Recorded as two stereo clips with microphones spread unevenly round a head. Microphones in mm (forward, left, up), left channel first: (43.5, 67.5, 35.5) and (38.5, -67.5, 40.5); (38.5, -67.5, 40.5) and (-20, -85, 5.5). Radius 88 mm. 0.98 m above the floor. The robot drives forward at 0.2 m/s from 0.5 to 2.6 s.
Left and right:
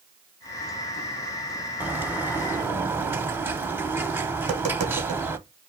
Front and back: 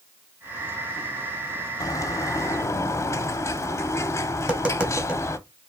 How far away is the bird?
About 0.7 m.